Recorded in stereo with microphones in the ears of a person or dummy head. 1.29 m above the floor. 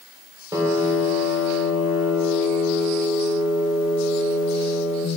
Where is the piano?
15° right (ahead or behind), 3 m.